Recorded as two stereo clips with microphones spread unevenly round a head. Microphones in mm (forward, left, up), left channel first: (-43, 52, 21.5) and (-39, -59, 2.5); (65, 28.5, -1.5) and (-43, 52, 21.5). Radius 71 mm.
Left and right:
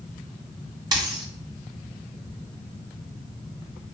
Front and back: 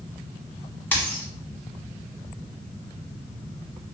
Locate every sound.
0.9 s a dropped coin: 100° right, 1.4 m